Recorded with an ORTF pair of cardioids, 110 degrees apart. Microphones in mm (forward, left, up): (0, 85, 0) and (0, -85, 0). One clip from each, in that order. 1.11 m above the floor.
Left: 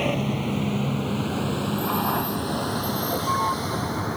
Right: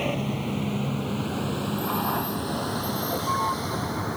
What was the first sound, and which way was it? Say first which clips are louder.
A vehicle: left 3 dB; 20° left.